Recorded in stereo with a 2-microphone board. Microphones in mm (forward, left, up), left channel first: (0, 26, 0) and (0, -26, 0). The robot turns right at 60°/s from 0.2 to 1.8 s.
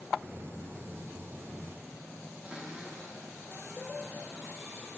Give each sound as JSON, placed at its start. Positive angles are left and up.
{"t": 2.4, "sound": "a cupboard door", "side_deg": -20, "distance_m": 2.5}